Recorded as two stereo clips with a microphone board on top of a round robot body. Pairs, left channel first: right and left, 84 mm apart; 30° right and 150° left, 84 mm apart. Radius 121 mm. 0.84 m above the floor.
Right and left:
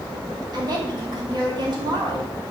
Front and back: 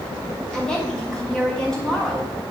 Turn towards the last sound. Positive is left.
turn(degrees=55)